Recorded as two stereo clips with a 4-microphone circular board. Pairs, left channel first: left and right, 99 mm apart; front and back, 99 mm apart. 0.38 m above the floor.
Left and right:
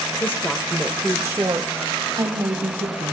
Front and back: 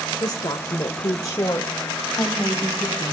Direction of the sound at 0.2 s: 30° left.